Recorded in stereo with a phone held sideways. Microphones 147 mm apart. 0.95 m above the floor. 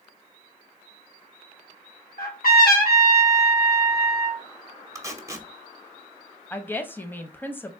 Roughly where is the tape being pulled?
Right.